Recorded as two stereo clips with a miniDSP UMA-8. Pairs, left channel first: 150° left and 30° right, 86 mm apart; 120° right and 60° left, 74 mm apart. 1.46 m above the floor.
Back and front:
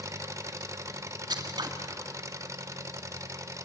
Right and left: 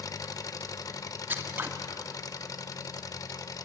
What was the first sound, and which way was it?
An engine running, 85° right.